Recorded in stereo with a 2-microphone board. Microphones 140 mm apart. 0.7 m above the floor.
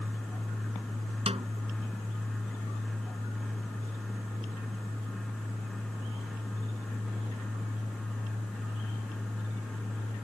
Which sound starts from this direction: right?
A snare drum, at 1.3 s.